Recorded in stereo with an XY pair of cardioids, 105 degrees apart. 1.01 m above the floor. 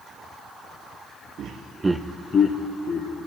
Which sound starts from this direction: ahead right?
Laughter, at 1.4 s.